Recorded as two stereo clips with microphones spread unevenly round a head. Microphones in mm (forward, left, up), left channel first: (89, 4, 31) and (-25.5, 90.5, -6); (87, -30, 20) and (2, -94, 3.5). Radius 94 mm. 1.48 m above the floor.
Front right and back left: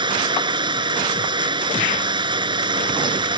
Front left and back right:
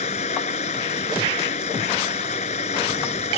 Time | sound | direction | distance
0.0 | running water | 85° left | ?